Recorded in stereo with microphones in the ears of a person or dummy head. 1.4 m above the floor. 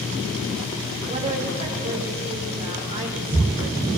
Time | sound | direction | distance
1.1 | a woman speaking | 35° right (ahead or behind) | 3 m